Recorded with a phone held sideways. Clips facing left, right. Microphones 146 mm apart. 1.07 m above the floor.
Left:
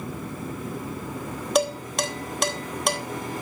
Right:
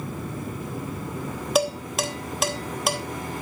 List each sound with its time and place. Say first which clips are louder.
1.6 s dishes clattering: even; centre (ahead or behind), 0.9 m